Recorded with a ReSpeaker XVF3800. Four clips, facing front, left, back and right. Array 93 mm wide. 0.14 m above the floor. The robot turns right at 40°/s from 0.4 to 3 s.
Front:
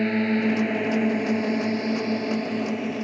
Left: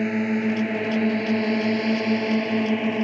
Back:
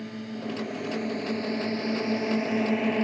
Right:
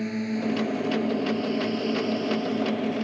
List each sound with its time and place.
0.0 s a drone: 35° left; by 3.0 s 130° left